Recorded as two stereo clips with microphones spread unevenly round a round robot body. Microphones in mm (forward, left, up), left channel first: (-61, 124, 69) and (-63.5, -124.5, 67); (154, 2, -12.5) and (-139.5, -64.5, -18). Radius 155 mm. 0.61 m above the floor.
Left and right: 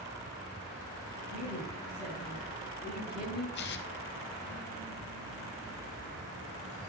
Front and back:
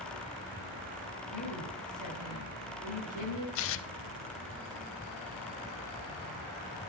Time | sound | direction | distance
1.3 | a woman speaking | 20° right | 5.5 m
3.5 | tearing paper | 40° left | 0.6 m